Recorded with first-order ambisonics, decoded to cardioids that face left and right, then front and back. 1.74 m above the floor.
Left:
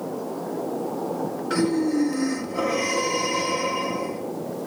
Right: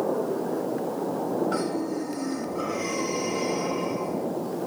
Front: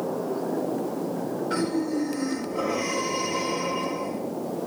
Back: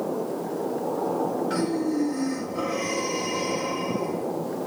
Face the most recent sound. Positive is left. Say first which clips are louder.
# left 5 dB, back 1 dB
turn(degrees=100)